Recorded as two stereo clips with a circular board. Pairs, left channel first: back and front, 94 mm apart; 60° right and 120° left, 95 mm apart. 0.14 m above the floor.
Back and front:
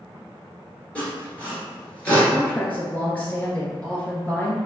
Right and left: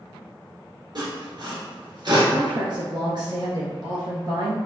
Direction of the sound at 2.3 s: 115° left.